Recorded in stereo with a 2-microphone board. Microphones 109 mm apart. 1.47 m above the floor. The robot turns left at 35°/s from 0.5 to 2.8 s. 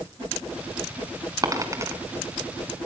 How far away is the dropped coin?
About 1.7 m.